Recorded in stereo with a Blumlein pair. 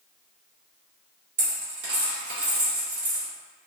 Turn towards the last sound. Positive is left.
turn(degrees=-55)